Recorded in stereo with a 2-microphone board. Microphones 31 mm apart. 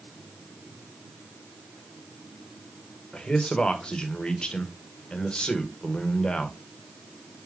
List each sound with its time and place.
3.1 s a man speaking: 30° left (ahead or behind), 0.8 m